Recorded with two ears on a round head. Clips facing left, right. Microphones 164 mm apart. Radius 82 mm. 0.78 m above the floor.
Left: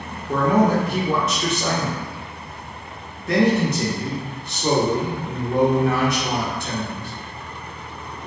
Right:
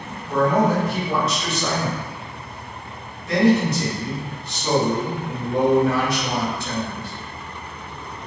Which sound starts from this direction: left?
A man speaking, at 0.3 s.